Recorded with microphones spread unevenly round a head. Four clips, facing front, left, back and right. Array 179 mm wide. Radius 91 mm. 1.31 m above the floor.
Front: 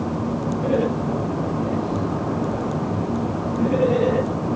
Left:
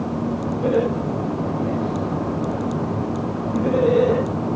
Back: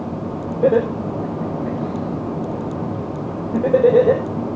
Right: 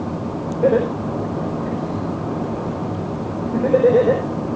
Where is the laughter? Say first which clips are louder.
Right 4 dB, back 7 dB; 150° right, 5 m.